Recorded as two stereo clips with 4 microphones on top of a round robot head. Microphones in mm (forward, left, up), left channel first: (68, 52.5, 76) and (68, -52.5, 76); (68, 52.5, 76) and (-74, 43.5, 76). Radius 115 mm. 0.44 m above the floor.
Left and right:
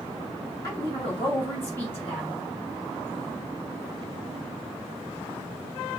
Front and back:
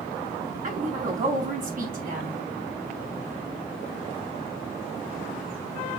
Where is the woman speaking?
155° left, 4 m; by 2.4 s 170° left, 4 m.